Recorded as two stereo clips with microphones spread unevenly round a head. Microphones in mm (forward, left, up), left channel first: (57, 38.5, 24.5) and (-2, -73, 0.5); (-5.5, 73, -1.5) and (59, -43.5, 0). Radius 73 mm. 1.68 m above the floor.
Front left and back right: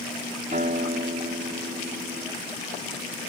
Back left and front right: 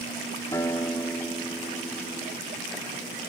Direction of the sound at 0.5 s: 170° right.